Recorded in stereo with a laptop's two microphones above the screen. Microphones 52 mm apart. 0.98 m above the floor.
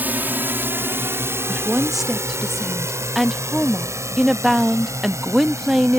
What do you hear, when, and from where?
0.0 s a drone: 35° right (ahead or behind); by 6.0 s 80° right
1.5 s a woman speaking: 5° right (ahead or behind)